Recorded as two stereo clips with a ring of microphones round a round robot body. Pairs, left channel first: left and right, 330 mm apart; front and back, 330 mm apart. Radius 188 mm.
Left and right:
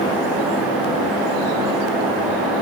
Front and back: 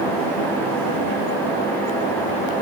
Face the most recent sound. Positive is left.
No sound to turn to.